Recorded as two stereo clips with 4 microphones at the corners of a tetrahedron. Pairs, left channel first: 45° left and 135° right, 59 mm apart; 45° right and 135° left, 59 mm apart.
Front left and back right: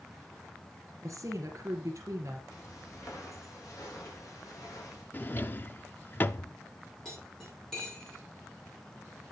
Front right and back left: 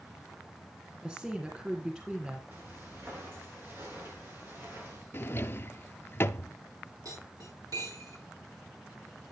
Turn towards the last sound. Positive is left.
turn(degrees=125)